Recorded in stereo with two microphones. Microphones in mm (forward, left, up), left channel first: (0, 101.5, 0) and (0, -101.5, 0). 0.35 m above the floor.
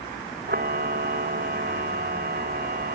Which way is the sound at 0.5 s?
50° right (ahead or behind).